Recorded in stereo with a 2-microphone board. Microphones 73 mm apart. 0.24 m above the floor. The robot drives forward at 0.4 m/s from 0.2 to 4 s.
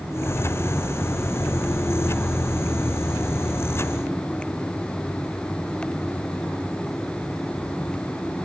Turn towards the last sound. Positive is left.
No sound to turn to.